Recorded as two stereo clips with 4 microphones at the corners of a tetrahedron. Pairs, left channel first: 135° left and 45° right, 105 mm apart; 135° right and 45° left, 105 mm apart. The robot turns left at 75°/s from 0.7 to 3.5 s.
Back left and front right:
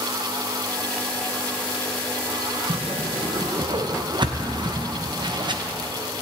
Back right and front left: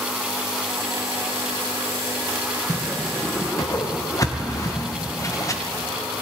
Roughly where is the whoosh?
Ahead.